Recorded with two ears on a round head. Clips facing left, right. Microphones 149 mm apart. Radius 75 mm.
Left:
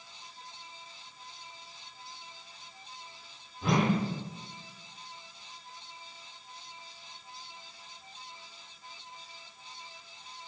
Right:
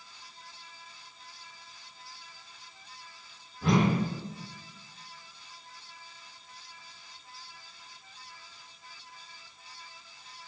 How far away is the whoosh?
About 0.6 m.